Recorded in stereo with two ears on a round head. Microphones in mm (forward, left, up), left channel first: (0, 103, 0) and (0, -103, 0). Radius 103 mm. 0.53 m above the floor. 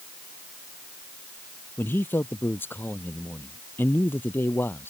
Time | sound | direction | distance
1.8 | a man speaking | 10° left (ahead or behind) | ?